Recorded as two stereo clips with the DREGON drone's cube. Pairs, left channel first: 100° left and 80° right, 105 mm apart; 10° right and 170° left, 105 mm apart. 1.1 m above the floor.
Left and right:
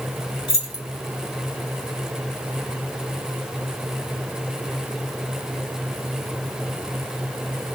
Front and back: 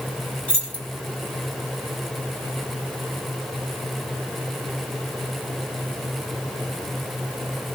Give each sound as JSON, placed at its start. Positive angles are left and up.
{"t": 0.5, "sound": "keys jangling", "azimuth_deg": 60, "distance_m": 2.0}